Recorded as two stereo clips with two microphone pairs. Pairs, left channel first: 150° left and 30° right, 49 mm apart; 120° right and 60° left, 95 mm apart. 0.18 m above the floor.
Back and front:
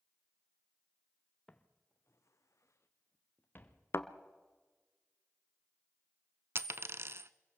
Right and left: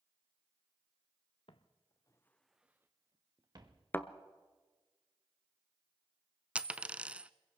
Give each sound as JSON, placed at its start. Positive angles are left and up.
{"t": 1.5, "sound": "footsteps", "azimuth_deg": -140, "distance_m": 1.5}
{"t": 3.9, "sound": "a thud", "azimuth_deg": 175, "distance_m": 0.8}
{"t": 6.5, "sound": "a dropped coin", "azimuth_deg": -15, "distance_m": 0.6}